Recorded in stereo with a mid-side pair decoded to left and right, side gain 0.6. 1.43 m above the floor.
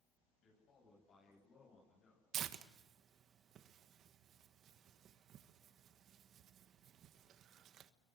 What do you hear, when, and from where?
0.4 s a man speaking: 50° left, 9.5 m; by 2.2 s 45° left, 8 m
2.3 s tearing paper: 55° right, 1.4 m